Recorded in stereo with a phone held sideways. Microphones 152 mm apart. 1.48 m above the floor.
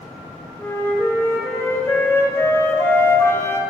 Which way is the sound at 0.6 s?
15° left (ahead or behind).